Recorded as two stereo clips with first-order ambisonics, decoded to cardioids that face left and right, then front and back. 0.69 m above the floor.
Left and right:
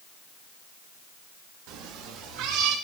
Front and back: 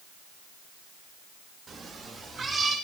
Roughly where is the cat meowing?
Right.